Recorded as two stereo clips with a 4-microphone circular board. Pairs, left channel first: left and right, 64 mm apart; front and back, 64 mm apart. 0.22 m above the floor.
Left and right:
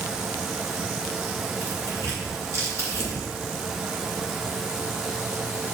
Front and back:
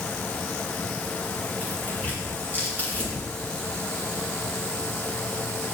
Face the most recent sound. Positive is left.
turn(degrees=-60)